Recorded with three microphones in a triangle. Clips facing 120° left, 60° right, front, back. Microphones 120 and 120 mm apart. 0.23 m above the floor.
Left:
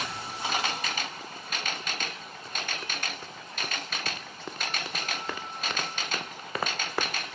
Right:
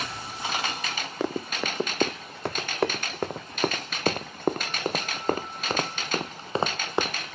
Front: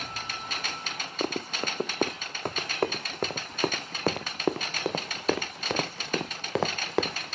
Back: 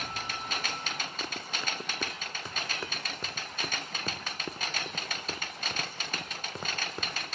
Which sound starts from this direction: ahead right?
Running footsteps, at 1.2 s.